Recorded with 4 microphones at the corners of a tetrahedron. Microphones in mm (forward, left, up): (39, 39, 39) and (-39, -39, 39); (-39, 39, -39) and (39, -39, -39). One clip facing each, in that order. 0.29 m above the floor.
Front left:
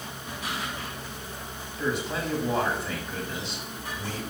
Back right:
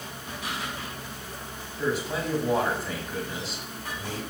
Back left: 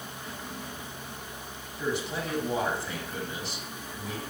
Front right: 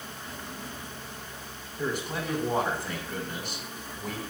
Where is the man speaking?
50° right, 2.5 m.